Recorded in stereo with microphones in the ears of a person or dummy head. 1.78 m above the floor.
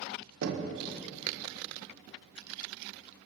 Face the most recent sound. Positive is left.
turn(degrees=-70)  # may be behind; listen again after turning